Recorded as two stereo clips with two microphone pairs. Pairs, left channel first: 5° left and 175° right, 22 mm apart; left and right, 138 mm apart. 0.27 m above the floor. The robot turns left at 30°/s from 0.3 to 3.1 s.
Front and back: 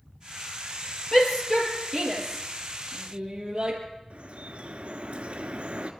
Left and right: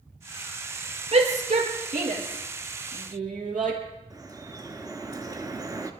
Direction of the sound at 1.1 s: 55° right.